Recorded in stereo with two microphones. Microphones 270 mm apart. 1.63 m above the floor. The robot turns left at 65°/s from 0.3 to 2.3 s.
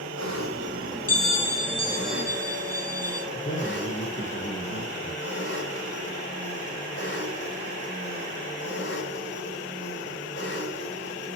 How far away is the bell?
About 1.8 m.